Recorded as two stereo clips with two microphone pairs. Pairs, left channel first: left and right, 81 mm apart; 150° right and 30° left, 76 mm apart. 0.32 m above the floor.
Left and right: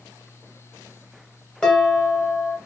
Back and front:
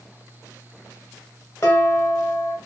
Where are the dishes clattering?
170° left, 0.9 m.